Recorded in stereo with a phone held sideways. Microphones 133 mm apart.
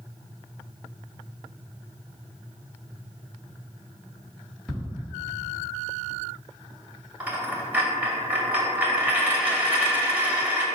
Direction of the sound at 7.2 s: 10° right (ahead or behind).